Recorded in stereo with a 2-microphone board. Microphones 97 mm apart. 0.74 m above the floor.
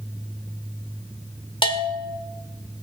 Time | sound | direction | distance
1.6 | a bell | 60° left (ahead or behind) | 1.5 m